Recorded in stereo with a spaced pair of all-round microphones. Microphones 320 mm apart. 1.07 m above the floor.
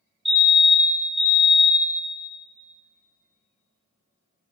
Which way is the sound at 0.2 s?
35° right (ahead or behind).